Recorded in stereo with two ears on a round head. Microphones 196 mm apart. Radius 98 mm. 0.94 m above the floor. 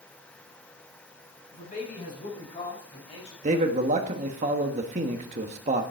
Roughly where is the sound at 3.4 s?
Right.